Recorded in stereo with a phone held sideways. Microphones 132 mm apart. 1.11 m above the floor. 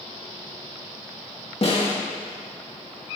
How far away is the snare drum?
About 2 m.